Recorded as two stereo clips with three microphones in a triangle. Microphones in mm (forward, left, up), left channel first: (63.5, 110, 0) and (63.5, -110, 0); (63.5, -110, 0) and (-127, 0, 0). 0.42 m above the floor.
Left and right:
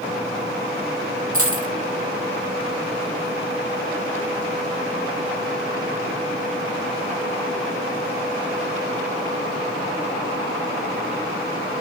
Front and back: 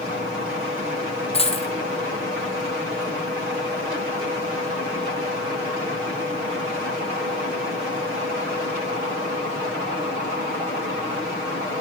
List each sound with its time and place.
1.3 s a dropped coin: 95° right, 1.4 m